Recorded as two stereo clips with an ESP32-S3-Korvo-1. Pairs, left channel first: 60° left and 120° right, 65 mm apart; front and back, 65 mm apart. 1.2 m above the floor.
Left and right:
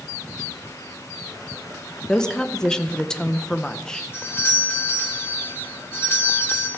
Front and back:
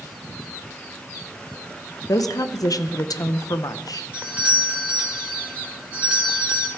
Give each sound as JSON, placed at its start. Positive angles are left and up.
{"t": 2.1, "sound": "a woman speaking", "azimuth_deg": -20, "distance_m": 0.7}
{"t": 4.1, "sound": "a doorbell", "azimuth_deg": 110, "distance_m": 1.9}